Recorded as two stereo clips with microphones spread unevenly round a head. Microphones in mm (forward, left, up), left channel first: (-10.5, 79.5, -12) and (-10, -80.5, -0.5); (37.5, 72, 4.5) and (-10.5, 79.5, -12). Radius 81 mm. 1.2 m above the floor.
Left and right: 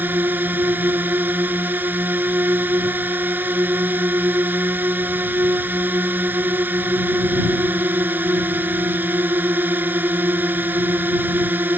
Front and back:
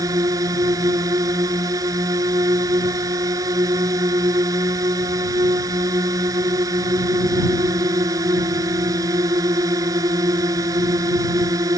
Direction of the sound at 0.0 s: 170° right.